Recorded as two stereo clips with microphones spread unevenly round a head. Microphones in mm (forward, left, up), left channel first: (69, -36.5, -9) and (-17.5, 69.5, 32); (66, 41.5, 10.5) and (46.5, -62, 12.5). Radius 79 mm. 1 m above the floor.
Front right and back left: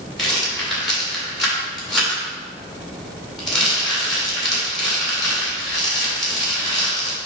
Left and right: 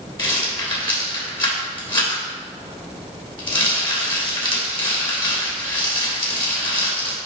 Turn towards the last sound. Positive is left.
turn(degrees=35)